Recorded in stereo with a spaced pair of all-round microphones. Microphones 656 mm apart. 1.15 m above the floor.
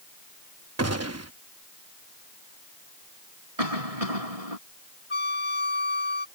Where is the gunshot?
25° right (ahead or behind).